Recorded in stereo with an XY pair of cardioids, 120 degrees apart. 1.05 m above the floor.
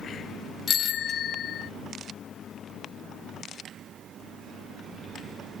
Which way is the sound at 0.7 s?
50° left.